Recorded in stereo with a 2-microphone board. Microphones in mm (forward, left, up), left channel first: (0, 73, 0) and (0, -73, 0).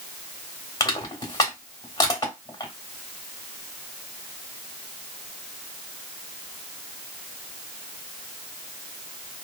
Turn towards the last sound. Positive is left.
turn(degrees=25)  # may be behind; listen again after turning